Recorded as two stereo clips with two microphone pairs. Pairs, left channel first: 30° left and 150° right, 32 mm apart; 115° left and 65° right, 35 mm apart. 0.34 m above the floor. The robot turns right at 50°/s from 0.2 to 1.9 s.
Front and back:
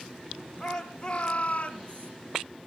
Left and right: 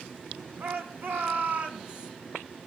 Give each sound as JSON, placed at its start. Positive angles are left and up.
{"t": 0.6, "sound": "a shout", "azimuth_deg": -65, "distance_m": 3.5}